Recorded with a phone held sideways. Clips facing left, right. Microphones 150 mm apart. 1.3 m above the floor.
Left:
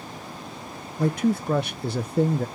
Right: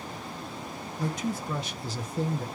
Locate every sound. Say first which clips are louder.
1.0 s a man speaking: left 9 dB; 60° left (ahead or behind), 0.6 m